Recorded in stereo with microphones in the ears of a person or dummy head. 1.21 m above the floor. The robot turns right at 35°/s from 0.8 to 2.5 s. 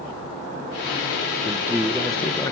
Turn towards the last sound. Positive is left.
turn(degrees=25)